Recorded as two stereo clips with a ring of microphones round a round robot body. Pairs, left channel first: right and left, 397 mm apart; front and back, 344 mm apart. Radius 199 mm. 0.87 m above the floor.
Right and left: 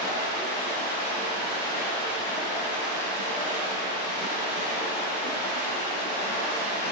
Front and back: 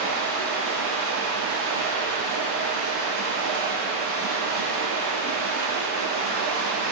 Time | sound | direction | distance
0.0 | running water | 45° right | 4 m